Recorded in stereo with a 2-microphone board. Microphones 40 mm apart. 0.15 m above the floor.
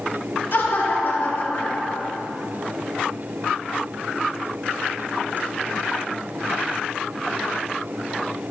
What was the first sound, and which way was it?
Laughter, 65° left (ahead or behind).